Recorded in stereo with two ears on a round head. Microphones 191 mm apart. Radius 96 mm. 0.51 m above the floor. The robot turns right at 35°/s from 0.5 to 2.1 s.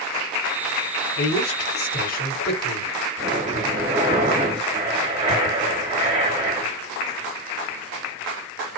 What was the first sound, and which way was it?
A man speaking, 85° left.